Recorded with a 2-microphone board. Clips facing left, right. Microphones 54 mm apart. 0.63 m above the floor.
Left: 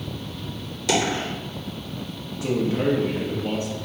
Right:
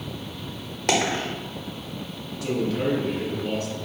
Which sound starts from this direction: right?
A dropped coin, at 0.9 s.